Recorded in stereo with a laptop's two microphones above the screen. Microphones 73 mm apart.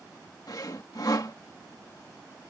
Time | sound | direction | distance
0.5 | sawing | 55° left (ahead or behind) | ?